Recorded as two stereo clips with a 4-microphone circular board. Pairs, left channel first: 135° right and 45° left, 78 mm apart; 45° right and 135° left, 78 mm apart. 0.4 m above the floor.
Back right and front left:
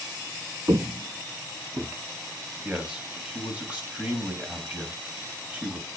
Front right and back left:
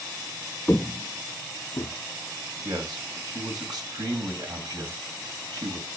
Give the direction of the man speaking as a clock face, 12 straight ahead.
8 o'clock.